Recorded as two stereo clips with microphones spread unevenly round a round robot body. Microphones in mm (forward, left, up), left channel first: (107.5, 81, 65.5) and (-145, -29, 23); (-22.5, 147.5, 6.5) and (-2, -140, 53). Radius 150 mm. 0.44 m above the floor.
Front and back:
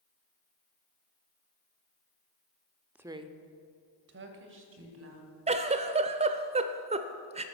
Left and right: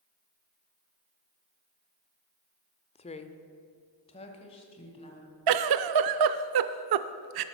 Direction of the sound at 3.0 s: 135° left.